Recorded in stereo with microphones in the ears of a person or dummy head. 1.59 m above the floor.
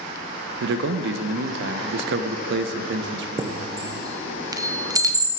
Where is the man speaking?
65° right (ahead or behind), 1.0 m.